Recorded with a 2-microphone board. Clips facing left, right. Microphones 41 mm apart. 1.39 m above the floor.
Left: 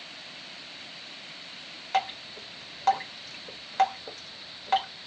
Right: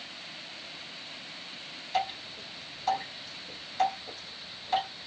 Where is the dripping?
50° left (ahead or behind), 1.1 m.